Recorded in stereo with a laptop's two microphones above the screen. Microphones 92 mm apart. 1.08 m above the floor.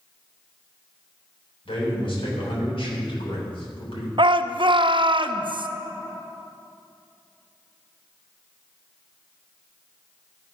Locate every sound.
1.6 s a man speaking: 80° left, 3.5 m
4.2 s a shout: 60° right (ahead or behind), 0.5 m